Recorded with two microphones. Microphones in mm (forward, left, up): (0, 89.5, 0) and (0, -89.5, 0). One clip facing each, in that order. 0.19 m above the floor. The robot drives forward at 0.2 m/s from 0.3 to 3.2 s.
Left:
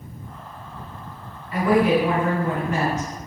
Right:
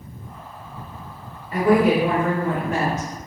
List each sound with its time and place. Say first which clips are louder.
1.5 s a woman speaking: right 1 dB; 35° right (ahead or behind), 1.8 m; by 3.1 s 30° right (ahead or behind), 1.9 m